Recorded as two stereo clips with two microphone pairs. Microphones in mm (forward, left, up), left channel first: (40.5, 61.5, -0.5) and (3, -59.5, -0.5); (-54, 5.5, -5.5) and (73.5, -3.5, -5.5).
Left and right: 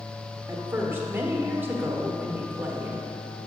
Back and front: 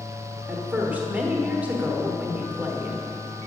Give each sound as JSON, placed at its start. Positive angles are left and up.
{"t": 0.5, "sound": "a woman speaking", "azimuth_deg": -65, "distance_m": 1.0}